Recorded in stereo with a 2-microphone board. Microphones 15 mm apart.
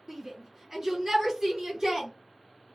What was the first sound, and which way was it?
A shout, 20° right (ahead or behind).